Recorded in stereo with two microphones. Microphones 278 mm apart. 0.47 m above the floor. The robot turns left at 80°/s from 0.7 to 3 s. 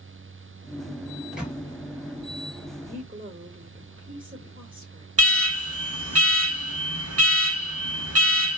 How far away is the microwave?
About 0.7 m.